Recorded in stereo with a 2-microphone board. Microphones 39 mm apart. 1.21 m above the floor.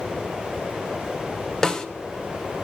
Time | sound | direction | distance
1.6 | a snare drum | 20° left (ahead or behind) | 1.1 m